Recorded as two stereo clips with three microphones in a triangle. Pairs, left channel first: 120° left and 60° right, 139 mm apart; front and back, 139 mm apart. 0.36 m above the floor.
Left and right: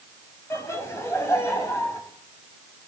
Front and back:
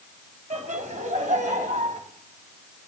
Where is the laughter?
170° right, 2.5 m.